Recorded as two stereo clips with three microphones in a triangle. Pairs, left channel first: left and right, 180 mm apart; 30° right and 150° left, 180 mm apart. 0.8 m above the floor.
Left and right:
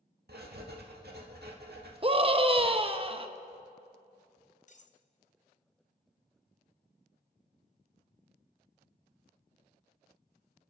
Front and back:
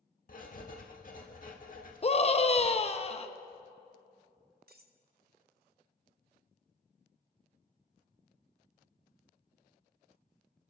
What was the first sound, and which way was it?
Writing, 70° right.